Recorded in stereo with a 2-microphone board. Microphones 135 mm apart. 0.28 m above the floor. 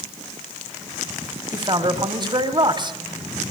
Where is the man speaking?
35° right (ahead or behind), 2.5 m.